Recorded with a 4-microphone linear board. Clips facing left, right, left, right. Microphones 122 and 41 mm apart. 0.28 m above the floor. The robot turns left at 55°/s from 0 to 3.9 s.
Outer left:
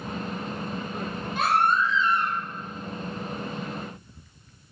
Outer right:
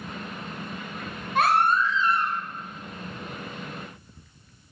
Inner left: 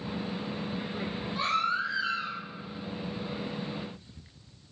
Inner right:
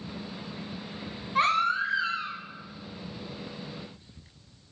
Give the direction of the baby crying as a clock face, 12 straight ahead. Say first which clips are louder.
Outer right 2 dB, inner right 5 dB; 3 o'clock.